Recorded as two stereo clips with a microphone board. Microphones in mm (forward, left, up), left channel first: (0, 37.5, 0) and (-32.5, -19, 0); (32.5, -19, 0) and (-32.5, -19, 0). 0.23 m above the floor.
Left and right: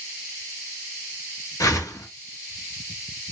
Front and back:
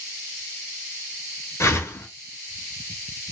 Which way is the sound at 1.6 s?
40° left.